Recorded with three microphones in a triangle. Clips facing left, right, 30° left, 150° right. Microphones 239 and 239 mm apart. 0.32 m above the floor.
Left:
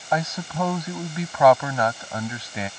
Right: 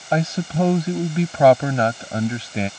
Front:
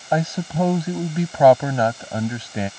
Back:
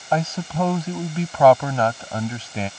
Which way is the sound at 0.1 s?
40° right.